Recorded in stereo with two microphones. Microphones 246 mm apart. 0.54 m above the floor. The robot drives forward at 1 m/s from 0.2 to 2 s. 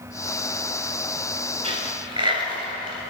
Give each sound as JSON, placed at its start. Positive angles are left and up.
{"t": 1.6, "sound": "a dropped coin", "side_deg": -25, "distance_m": 1.8}